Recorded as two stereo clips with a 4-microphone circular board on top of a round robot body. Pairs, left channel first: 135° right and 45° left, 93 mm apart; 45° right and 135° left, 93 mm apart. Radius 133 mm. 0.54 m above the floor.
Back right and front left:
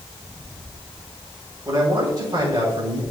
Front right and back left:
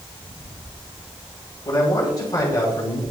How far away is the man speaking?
About 3.5 m.